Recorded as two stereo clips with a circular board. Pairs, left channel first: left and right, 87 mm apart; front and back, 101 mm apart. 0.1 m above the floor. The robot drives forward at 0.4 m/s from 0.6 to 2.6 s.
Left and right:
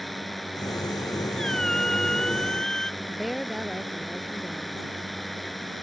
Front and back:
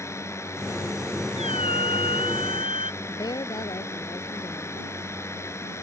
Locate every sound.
0.0 s a drone: 5° left
1.4 s a squeak: 5° left; by 2.9 s 10° left
3.0 s a woman speaking: straight ahead